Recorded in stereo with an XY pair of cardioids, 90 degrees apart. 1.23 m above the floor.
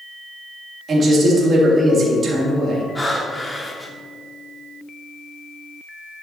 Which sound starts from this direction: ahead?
Breathing, at 3.0 s.